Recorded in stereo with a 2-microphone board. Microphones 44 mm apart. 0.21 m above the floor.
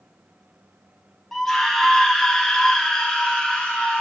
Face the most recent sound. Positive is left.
turn(degrees=20)  # may be behind; listen again after turning